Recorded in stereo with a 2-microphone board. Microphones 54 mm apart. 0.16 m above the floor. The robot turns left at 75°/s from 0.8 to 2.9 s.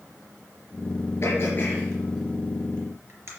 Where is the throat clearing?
55° left (ahead or behind), 3.5 m; by 3.3 s 50° right (ahead or behind), 3.5 m.